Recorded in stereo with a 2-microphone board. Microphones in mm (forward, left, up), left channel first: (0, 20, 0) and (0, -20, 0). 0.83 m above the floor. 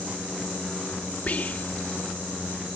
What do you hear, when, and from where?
1.3 s whispering: 40° left (ahead or behind)